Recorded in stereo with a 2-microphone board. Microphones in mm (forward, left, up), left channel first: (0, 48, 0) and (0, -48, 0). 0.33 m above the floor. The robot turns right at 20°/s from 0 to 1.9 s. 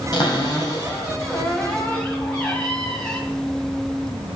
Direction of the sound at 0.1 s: 130° left.